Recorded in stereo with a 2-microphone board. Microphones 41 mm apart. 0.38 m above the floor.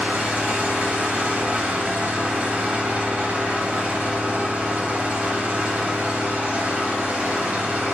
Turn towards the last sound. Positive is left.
turn(degrees=-35)  # may be behind; listen again after turning